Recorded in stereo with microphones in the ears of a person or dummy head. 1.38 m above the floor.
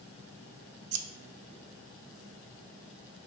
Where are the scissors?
85° right, 0.9 m.